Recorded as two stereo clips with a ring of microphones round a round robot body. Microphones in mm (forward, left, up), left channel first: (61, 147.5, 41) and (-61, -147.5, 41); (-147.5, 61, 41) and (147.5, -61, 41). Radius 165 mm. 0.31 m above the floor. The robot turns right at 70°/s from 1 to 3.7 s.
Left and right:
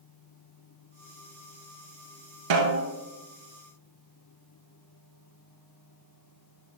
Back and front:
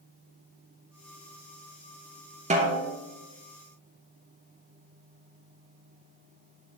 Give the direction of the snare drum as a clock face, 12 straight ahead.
3 o'clock.